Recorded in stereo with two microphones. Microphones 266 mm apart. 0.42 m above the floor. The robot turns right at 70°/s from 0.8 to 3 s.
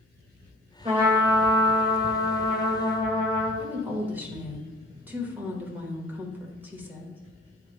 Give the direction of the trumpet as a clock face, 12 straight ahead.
1 o'clock.